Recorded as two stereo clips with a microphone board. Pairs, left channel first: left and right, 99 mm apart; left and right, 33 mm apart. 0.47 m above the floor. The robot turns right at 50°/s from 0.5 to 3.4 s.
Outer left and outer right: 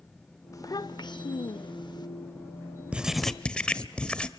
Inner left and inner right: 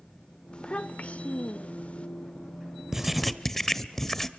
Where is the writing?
10° right (ahead or behind), 0.9 m; by 4.3 s 10° left (ahead or behind), 0.9 m.